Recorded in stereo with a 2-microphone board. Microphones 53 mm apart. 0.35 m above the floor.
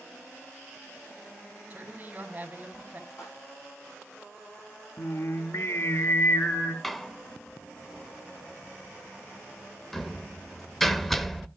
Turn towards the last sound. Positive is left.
turn(degrees=5)  # may be behind; listen again after turning